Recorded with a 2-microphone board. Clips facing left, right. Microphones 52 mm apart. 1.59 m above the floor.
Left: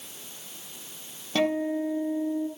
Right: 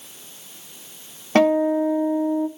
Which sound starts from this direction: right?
A guitar, at 1.4 s.